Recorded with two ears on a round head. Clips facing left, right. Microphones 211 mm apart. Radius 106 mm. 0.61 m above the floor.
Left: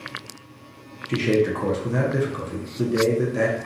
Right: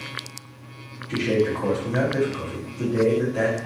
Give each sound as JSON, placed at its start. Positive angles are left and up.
{"t": 1.1, "sound": "a man speaking", "side_deg": 35, "distance_m": 0.8}